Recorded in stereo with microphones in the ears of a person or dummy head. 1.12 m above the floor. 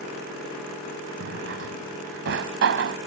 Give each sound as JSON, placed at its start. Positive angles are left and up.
{"t": 1.2, "sound": "a drawer", "side_deg": -65}